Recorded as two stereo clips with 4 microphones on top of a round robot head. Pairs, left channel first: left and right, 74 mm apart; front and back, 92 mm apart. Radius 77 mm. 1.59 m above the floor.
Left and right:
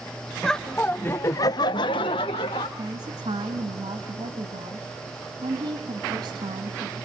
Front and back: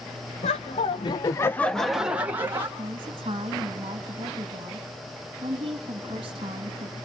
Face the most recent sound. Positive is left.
turn(degrees=-125)